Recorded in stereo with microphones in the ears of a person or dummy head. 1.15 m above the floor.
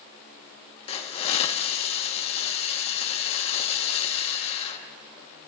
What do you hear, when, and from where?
0.9 s a hiss: 35° left (ahead or behind), 1.3 m